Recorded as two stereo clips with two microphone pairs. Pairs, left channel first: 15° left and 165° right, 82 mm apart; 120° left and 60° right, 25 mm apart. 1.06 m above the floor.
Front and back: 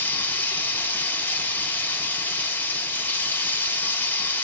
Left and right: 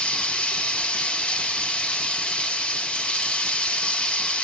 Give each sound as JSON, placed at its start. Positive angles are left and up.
{"t": 0.0, "sound": "running water", "azimuth_deg": 80, "distance_m": 1.1}